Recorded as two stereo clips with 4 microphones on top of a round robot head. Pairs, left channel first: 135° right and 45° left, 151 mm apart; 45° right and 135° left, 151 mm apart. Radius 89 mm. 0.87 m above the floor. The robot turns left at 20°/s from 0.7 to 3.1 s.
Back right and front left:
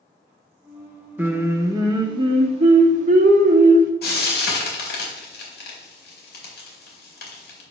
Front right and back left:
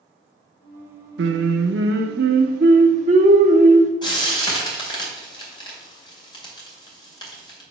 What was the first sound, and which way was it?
Singing, 125° left.